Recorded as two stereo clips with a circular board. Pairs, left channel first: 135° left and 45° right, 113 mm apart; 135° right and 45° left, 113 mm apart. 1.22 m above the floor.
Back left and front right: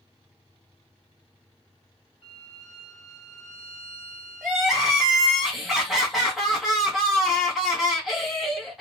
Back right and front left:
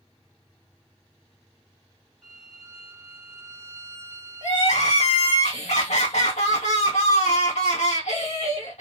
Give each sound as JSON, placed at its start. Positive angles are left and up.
{"t": 2.2, "sound": "a violin", "azimuth_deg": 140, "distance_m": 1.1}
{"t": 4.4, "sound": "crying", "azimuth_deg": -135, "distance_m": 1.5}